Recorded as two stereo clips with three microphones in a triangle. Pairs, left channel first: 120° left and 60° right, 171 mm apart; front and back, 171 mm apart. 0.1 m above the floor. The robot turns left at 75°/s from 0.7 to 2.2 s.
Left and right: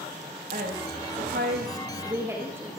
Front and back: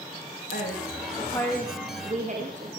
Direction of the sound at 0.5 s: 25° right.